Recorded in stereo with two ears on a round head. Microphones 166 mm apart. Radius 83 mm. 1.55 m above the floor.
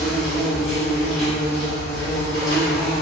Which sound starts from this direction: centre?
An insect, at 0.0 s.